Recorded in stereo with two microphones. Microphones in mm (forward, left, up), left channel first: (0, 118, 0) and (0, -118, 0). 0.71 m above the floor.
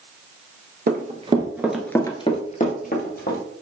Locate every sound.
0.9 s running footsteps: 40° right (ahead or behind), 0.8 m; by 3.4 s 45° left (ahead or behind), 1.3 m